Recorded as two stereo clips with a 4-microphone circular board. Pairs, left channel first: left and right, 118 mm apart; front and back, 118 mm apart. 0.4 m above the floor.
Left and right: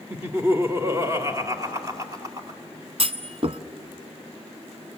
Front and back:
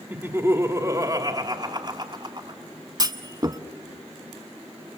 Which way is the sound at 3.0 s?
125° right.